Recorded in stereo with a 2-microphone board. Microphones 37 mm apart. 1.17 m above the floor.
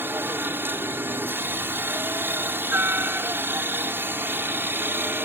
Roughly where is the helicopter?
Right.